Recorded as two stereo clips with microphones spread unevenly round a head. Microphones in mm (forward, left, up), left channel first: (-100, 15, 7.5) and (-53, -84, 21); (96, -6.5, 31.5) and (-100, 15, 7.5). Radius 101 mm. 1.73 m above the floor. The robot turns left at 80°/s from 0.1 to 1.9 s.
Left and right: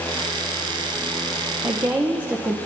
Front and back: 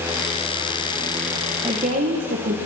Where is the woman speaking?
115° right, 1.4 m; by 2.5 s 135° right, 1.4 m.